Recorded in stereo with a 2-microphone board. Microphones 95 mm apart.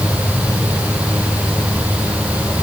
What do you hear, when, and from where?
Only background noise.